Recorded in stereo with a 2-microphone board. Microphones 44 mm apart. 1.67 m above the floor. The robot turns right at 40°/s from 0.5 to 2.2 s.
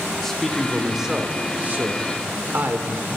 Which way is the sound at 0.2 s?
170° left.